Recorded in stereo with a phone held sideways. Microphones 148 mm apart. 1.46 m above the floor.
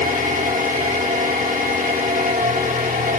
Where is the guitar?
I don't hear a guitar.